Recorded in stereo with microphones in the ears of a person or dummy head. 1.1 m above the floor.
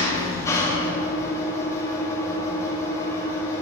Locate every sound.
0.0 s an engine running: 15° left (ahead or behind), 1.0 m